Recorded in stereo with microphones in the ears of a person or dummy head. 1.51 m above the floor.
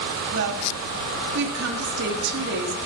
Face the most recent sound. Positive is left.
turn(degrees=-75)  # may be behind; listen again after turning